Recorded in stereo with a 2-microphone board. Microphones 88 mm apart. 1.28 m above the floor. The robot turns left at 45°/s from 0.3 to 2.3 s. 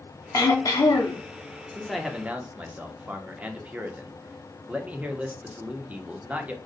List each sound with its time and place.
0.3 s throat clearing: 115° left, 0.6 m; by 1.2 s 75° left, 0.6 m
1.7 s a man speaking: 10° left (ahead or behind), 0.5 m; by 6.5 s 15° right (ahead or behind), 0.5 m